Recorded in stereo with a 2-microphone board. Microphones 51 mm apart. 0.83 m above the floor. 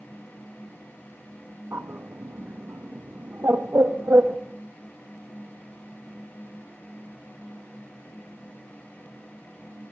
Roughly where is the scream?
No scream in this recording.